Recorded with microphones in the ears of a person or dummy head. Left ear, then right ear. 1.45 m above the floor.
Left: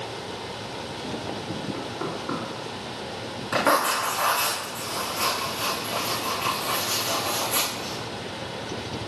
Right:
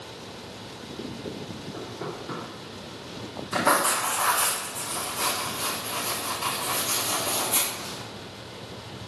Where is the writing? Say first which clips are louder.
Left 1 dB; 40° left (ahead or behind), 3 m.